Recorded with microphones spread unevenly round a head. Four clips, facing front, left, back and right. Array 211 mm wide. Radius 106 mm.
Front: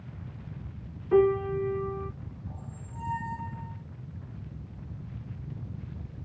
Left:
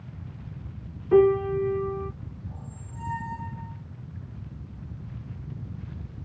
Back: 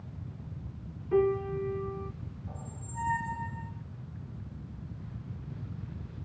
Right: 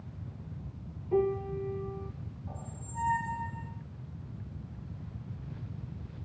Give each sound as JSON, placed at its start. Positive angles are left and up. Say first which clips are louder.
{"t": 1.1, "sound": "a piano", "louder": "left 10 dB, front 4 dB", "azimuth_deg": 80, "distance_m": 0.5}
{"t": 2.5, "sound": "a squeak", "louder": "left 1 dB, even", "azimuth_deg": -125, "distance_m": 8.5}